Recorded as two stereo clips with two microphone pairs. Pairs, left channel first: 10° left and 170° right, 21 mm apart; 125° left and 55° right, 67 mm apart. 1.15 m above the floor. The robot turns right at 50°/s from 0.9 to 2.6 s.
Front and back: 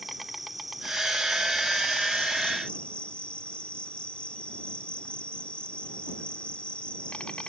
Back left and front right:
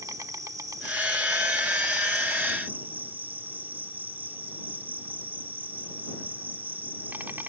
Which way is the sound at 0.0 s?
80° right.